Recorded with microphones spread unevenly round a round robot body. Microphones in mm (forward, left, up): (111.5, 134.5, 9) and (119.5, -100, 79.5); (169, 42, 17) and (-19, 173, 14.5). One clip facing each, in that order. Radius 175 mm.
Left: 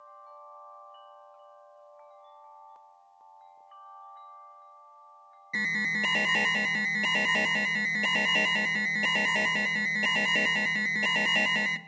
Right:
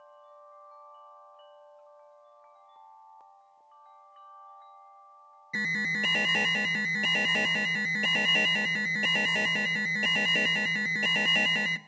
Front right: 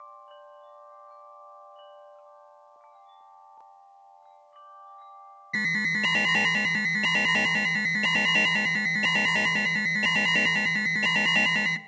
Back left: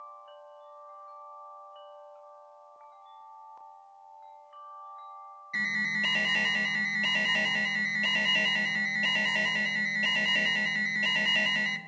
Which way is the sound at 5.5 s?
5° right.